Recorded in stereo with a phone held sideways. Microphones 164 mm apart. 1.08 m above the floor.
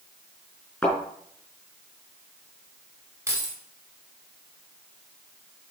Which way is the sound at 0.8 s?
5° left (ahead or behind).